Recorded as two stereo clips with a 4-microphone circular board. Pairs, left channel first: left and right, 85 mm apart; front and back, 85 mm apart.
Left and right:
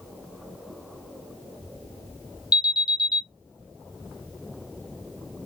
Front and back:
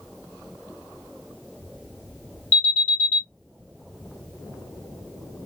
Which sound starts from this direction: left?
An alarm, at 2.5 s.